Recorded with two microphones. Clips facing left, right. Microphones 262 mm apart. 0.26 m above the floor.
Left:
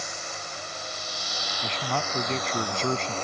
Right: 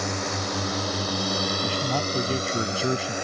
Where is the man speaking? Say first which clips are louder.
Right 5 dB; 10° right (ahead or behind).